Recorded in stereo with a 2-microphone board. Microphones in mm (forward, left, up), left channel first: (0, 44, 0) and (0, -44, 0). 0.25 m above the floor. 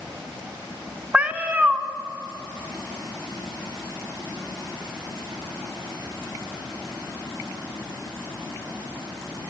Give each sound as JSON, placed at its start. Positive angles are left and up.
{"t": 1.1, "sound": "a cat meowing", "side_deg": -15, "distance_m": 0.6}